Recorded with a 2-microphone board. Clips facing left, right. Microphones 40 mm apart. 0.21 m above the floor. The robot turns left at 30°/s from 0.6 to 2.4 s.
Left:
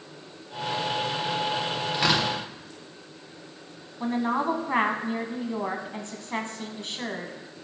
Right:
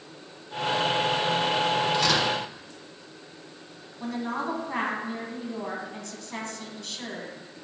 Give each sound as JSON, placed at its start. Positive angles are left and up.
{"t": 1.9, "sound": "tearing paper", "side_deg": 20, "distance_m": 2.5}
{"t": 4.0, "sound": "a woman speaking", "side_deg": 30, "distance_m": 1.3}